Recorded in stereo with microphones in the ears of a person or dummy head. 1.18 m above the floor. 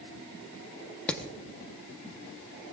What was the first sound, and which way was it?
Hammering, 5° left (ahead or behind).